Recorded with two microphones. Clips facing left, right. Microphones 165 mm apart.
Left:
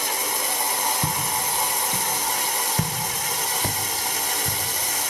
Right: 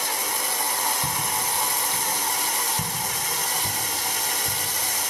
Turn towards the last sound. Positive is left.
turn(degrees=55)  # may be behind; listen again after turning